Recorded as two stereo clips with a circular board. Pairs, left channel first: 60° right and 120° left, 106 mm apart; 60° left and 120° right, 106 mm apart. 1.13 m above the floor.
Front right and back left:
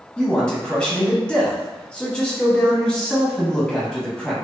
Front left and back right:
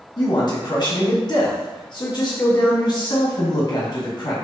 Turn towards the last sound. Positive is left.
turn(degrees=20)